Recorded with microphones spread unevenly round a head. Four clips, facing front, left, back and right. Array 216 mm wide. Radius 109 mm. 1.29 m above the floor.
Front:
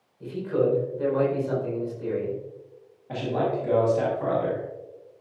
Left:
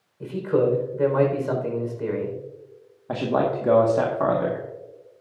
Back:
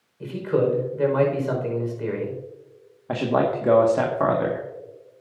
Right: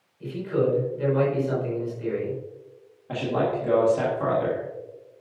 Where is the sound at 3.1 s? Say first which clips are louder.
Left 2 dB, back 4 dB; 150° left, 1.6 m.